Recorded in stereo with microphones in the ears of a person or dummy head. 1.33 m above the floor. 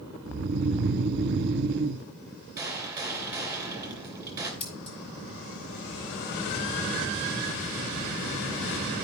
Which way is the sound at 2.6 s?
10° right (ahead or behind).